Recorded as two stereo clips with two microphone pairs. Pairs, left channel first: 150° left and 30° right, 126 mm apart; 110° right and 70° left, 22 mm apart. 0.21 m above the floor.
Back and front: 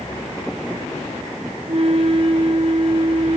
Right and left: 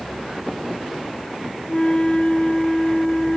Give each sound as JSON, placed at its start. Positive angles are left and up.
{"t": 1.7, "sound": "a flute", "azimuth_deg": -75, "distance_m": 1.3}